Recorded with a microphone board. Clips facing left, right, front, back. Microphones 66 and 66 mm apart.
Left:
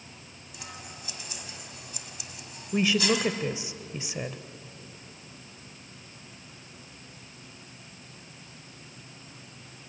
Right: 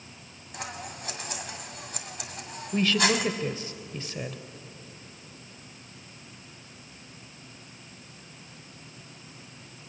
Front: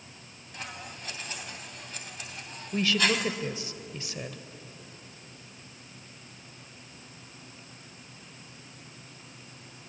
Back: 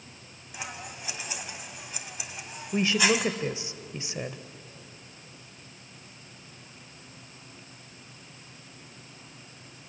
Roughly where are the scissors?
Right.